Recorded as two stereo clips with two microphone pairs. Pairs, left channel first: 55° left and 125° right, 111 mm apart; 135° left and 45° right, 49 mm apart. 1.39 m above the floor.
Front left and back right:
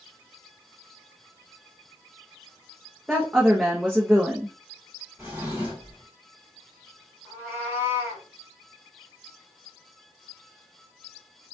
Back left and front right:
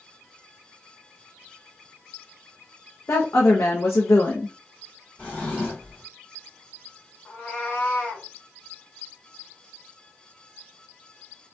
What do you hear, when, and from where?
3.1 s a woman speaking: 155° left, 0.6 m
5.2 s a drawer: 165° left, 1.4 m
7.2 s a cat meowing: 165° left, 1.0 m